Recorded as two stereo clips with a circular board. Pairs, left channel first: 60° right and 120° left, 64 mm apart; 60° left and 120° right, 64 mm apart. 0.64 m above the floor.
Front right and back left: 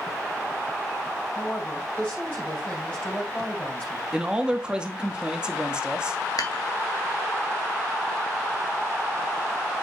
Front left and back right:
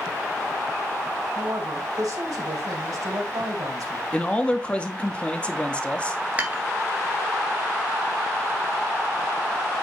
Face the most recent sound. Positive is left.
turn(degrees=-50)